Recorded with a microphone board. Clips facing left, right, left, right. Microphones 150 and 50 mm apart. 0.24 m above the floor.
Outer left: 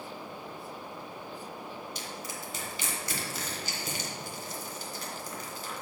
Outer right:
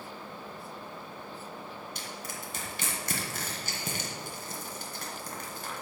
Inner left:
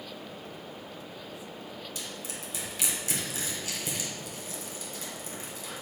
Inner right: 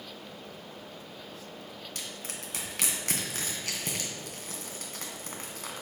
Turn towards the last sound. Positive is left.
turn(degrees=-50)  # may be behind; listen again after turning